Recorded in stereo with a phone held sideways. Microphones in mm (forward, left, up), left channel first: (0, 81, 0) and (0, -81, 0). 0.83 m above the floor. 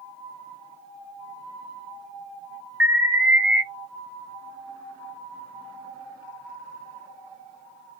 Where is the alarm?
10° right (ahead or behind), 1.0 m.